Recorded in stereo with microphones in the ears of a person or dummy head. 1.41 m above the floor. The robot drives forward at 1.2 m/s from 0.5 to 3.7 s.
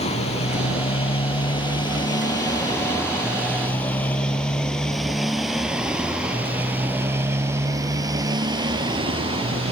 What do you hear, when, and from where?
0.0 s a motorcycle: 40° left (ahead or behind); by 9.7 s 30° right (ahead or behind)